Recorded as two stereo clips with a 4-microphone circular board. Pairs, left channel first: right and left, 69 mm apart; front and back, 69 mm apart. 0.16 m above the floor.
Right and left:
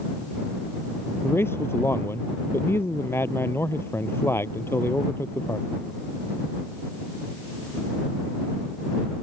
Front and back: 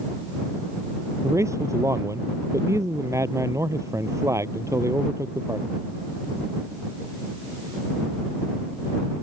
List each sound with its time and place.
1.2 s a man speaking: 140° right